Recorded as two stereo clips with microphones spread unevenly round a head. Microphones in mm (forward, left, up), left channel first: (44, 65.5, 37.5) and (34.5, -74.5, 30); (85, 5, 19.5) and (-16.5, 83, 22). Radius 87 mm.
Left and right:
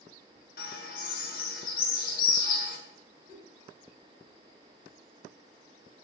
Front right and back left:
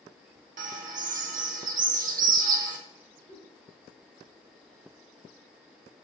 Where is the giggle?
85° right, 2.5 m.